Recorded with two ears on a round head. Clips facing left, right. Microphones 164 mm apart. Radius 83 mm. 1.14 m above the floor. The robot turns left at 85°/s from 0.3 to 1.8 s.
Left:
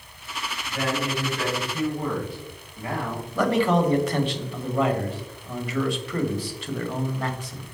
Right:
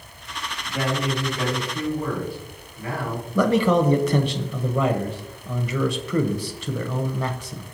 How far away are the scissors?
I don't hear scissors.